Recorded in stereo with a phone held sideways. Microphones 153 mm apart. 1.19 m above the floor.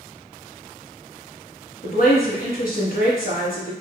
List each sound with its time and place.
1.8 s a woman speaking: 75° left (ahead or behind), 1.8 m